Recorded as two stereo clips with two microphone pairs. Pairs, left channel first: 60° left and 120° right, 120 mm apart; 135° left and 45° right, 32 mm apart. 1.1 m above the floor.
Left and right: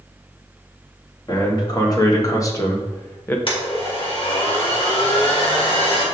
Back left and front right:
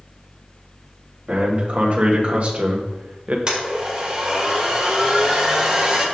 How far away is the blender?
About 2.5 m.